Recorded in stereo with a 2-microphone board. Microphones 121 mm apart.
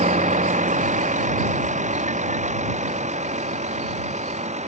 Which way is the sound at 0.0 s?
75° right (ahead or behind).